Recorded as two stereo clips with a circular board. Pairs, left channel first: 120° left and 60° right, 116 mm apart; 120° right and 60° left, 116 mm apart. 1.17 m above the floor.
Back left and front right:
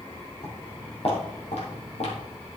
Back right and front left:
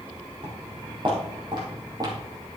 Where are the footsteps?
95° left, 3 m; by 2.2 s 115° left, 3 m.